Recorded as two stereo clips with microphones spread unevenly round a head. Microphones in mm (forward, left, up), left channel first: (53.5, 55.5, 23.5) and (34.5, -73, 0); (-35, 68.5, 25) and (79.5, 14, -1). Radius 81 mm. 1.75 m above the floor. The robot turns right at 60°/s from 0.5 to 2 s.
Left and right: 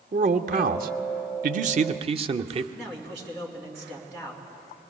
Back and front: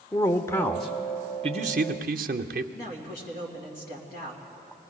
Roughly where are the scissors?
I don't hear scissors.